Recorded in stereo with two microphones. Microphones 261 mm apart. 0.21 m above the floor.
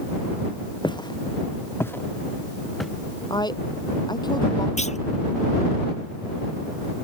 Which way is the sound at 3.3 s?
15° left (ahead or behind).